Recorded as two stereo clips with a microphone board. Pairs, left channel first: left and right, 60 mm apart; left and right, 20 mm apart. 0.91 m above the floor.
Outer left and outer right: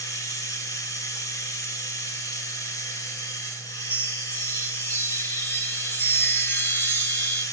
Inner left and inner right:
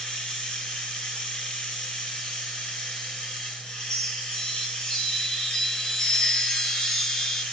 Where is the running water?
70° left (ahead or behind), 4.5 m.